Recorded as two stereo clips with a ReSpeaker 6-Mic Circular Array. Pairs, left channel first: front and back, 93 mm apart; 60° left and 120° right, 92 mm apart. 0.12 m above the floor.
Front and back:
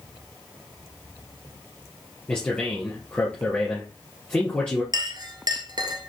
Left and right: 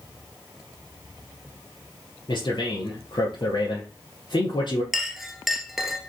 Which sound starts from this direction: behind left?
A clink, at 4.9 s.